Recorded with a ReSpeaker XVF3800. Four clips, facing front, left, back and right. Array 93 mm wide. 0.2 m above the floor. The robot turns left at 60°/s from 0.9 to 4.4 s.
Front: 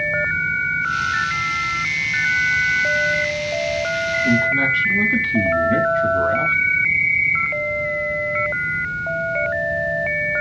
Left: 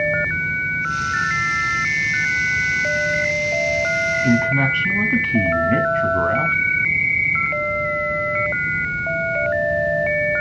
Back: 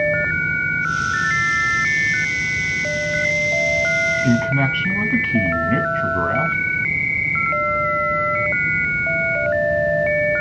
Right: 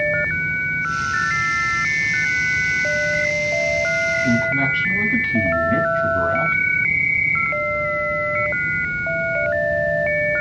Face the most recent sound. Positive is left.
turn(degrees=145)